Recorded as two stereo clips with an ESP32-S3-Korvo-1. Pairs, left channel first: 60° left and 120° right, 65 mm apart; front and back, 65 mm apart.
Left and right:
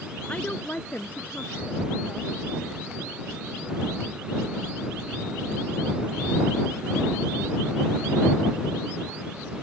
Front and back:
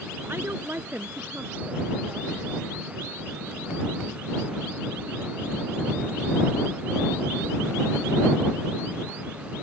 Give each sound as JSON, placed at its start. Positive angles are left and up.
{"t": 0.3, "sound": "a woman speaking", "azimuth_deg": 130}